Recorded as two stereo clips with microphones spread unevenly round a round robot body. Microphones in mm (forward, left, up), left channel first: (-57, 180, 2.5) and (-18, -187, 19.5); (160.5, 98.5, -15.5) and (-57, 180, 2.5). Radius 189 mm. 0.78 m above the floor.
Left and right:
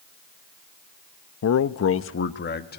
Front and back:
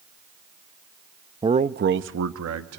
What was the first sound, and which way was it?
A man speaking, 90° left.